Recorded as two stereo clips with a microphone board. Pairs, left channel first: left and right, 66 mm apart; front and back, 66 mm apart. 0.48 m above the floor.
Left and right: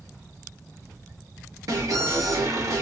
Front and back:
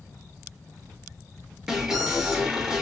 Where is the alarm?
100° right, 0.9 m.